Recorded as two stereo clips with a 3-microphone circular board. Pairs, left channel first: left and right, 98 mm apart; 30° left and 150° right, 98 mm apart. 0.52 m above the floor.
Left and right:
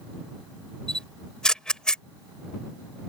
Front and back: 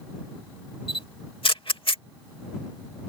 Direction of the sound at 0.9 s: 10° left.